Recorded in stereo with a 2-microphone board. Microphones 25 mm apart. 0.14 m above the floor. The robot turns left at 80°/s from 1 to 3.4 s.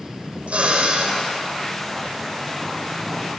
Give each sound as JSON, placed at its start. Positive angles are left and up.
{"t": 0.5, "sound": "a drill", "side_deg": -55, "distance_m": 5.0}